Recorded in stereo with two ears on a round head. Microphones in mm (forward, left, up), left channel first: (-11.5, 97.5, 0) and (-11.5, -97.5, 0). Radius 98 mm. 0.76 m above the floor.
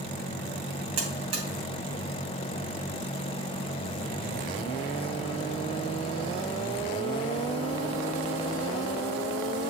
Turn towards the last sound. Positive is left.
turn(degrees=-80)